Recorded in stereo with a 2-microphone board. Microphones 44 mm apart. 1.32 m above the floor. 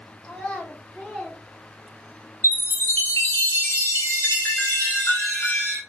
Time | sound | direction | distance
0.2 | a child speaking | 20° left (ahead or behind) | 2.5 m
2.4 | a chime | 60° left (ahead or behind) | 1.3 m